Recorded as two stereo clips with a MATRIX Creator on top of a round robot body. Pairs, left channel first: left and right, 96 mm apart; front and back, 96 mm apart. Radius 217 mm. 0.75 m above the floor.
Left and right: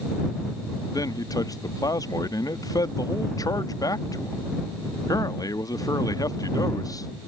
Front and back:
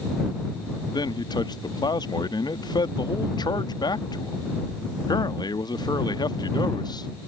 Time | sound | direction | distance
0.9 | a man speaking | 40° left | ?